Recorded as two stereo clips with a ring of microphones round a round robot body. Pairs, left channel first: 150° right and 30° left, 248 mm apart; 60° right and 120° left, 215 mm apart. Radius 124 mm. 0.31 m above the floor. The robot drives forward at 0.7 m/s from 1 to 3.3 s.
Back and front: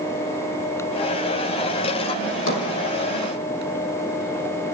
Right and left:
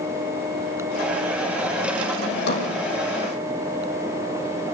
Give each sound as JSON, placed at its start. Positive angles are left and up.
{"t": 2.3, "sound": "a drawer", "azimuth_deg": -105, "distance_m": 5.5}